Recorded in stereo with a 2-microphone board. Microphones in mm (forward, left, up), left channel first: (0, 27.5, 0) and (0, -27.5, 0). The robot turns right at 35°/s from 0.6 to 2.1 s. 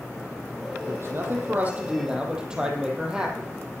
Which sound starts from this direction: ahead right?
A man speaking, at 0.9 s.